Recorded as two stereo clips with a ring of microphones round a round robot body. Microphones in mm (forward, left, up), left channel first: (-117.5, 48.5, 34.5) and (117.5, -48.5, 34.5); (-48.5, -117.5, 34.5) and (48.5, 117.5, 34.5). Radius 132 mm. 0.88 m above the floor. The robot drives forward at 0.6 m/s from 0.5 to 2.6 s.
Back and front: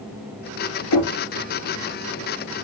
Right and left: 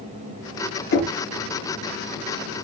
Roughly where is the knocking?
Behind.